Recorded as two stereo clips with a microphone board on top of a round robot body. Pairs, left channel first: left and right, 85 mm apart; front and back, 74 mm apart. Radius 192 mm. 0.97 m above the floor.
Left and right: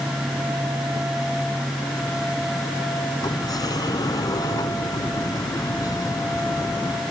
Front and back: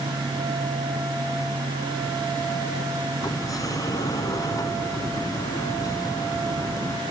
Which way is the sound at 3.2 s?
45° left.